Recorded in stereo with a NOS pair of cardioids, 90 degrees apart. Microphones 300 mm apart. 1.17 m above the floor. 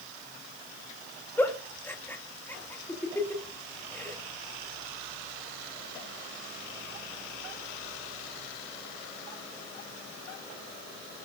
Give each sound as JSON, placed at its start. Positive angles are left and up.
{"t": 1.4, "sound": "a giggle", "azimuth_deg": 5, "distance_m": 2.0}